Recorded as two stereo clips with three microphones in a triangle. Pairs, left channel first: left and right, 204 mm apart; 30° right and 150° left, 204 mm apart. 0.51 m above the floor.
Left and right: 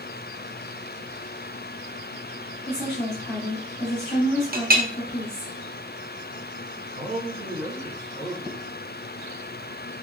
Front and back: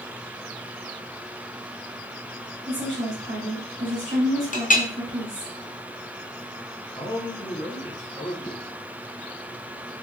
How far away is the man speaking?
About 2 m.